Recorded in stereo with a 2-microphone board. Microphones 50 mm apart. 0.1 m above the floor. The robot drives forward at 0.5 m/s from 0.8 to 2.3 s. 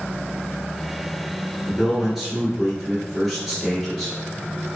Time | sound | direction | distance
1.7 | a man speaking | 5° right (ahead or behind) | 1.5 m